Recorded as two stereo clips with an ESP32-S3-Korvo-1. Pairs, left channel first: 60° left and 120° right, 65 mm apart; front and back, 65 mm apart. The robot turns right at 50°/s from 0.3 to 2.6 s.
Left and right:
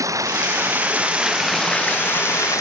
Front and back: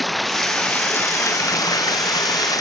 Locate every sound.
0.0 s running water: 90° right; by 2.6 s 25° left